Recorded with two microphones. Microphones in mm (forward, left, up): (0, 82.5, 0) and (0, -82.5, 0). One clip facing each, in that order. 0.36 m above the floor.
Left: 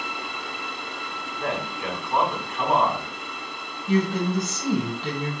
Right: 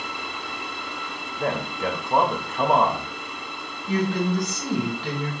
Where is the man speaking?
45° right (ahead or behind), 1.2 m.